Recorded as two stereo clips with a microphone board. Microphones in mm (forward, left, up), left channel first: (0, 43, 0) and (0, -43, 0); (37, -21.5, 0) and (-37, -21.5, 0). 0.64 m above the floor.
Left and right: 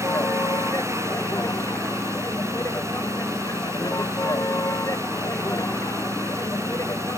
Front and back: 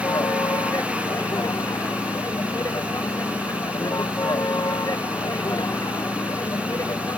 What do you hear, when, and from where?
0.0 s a vehicle: 35° left